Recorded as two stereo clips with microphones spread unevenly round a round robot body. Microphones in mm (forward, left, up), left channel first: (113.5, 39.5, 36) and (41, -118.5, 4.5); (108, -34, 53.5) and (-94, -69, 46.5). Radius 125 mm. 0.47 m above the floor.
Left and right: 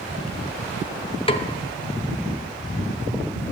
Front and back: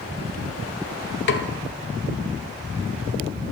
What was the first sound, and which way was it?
A snare drum, 5° left.